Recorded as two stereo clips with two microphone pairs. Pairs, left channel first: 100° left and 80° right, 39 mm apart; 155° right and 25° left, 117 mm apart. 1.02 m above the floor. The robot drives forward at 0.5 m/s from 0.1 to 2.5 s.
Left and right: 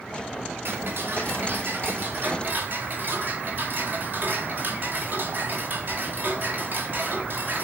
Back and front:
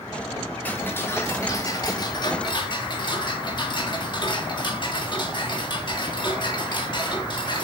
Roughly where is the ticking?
Right.